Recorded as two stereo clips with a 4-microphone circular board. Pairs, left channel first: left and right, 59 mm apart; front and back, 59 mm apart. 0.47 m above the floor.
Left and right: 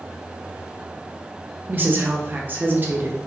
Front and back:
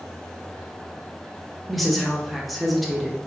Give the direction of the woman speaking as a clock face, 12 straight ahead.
3 o'clock.